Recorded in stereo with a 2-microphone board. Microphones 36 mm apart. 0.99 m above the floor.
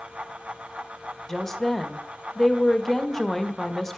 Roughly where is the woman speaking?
Centre.